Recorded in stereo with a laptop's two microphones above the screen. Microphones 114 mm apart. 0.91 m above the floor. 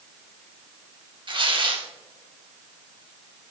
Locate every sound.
1.3 s tearing paper: 50° right (ahead or behind), 1.3 m